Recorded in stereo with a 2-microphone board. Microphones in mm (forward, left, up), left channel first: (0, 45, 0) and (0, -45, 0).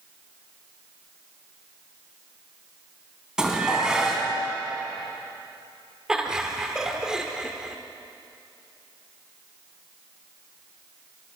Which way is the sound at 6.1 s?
10° right (ahead or behind).